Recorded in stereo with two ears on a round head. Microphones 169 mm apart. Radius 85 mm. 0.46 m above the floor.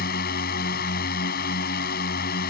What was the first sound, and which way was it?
A drone, 55° left (ahead or behind).